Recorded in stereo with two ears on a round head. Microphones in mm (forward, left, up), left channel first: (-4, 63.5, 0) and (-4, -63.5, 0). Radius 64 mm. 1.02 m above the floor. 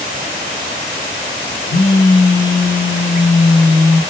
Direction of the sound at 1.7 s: 65° left (ahead or behind).